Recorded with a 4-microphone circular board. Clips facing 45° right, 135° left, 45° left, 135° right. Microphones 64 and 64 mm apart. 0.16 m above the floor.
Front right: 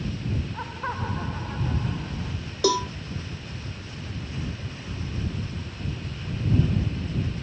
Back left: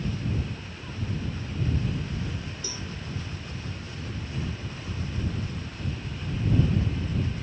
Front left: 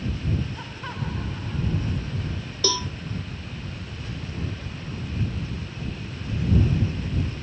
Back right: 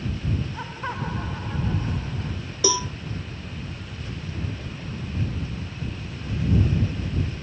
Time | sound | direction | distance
0.5 | laughter | 65° right | ?
2.6 | a cowbell | 55° right | ?